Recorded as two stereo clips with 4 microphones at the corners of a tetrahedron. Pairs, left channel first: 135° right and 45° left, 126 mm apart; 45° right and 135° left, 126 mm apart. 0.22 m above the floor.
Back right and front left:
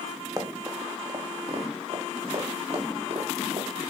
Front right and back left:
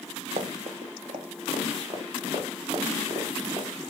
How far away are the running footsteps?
About 2.5 m.